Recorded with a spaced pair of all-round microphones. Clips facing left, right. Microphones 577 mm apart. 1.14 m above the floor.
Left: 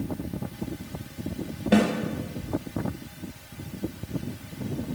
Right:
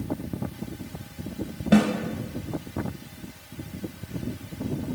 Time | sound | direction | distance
1.7 | a snare drum | 30° right (ahead or behind) | 0.8 m